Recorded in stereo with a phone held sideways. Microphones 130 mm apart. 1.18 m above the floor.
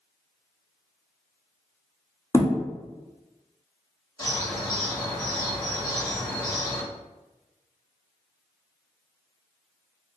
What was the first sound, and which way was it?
A thud, 20° left (ahead or behind).